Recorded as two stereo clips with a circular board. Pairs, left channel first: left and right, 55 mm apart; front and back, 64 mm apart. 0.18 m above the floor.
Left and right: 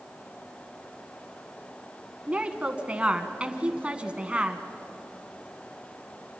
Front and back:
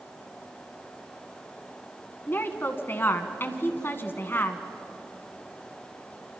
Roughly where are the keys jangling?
No keys jangling in this recording.